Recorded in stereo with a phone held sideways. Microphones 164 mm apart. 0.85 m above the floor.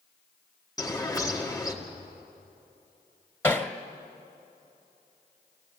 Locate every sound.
0.8 s a bird: 20° left (ahead or behind), 2.0 m
3.4 s hammering: 15° left (ahead or behind), 1.2 m